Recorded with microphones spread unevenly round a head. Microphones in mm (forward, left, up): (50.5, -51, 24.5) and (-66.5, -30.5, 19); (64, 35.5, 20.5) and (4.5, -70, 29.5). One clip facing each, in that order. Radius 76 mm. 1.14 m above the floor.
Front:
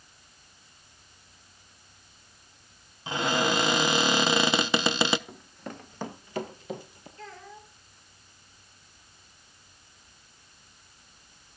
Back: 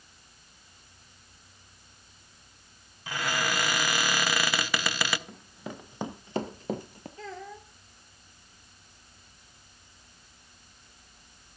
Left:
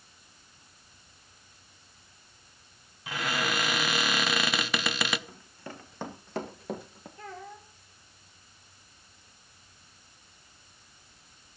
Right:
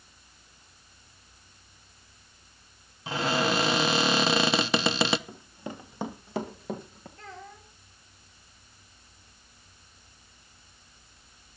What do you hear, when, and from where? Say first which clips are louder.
3.1 s a cupboard door: front 5 dB, right 5 dB; 70° right, 0.7 m
5.3 s running footsteps: even, right 5 dB; 85° right, 1.2 m; by 7.1 s 150° left, 1.4 m
7.2 s a child speaking: back 3 dB, left 3 dB; 145° left, 2.5 m